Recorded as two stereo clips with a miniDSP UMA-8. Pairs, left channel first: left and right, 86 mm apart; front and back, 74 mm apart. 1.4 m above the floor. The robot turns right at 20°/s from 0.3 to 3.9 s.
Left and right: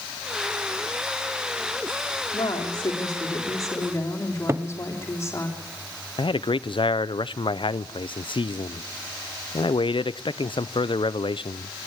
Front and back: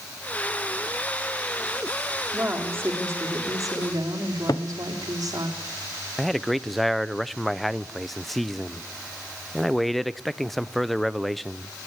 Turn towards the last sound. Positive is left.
turn(degrees=90)